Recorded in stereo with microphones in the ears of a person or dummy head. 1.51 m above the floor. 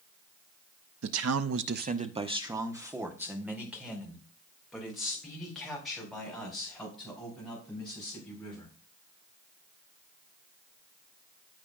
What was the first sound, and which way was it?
A man speaking, 60° right (ahead or behind).